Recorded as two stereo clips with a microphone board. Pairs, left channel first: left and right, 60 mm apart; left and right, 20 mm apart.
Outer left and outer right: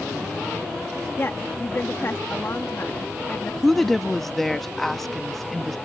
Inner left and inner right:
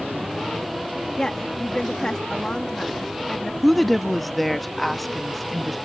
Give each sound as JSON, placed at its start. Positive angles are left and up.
{"t": 1.2, "sound": "a woman speaking", "side_deg": 45}
{"t": 3.6, "sound": "a woman speaking", "side_deg": 5}